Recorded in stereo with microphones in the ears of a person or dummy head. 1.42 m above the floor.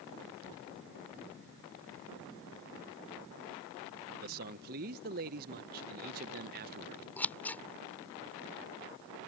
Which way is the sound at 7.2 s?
15° left (ahead or behind).